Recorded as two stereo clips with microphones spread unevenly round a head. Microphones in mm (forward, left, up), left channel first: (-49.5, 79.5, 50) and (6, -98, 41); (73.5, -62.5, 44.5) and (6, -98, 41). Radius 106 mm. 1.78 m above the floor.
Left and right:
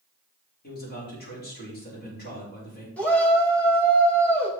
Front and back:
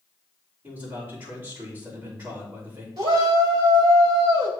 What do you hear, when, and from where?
0.6 s a man speaking: 145° left, 4.5 m
3.0 s a shout: 170° right, 2.5 m